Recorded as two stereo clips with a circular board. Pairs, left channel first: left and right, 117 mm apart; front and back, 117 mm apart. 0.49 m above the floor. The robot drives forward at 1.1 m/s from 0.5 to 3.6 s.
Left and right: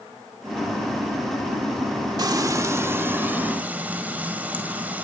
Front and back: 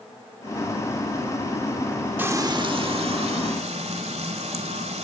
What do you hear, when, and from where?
2.2 s frying: 115° right, 0.8 m; by 5.0 s 165° right, 1.9 m